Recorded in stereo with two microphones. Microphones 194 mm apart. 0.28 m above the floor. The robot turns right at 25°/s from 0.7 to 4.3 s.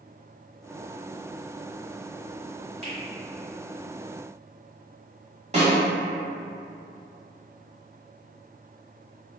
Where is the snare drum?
35° right (ahead or behind), 1.2 m.